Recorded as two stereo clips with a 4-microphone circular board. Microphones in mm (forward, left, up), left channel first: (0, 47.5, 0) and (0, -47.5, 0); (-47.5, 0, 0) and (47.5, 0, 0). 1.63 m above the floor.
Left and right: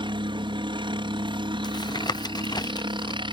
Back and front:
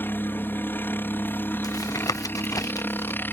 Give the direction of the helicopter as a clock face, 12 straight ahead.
4 o'clock.